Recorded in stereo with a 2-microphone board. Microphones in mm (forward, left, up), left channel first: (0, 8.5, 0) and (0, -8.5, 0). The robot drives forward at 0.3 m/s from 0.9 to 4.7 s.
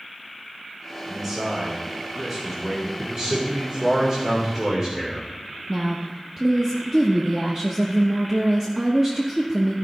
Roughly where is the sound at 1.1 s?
Right.